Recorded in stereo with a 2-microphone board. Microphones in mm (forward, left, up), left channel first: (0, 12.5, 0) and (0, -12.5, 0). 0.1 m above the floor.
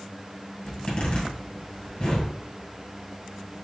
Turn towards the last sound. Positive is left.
turn(degrees=45)  # may be behind; listen again after turning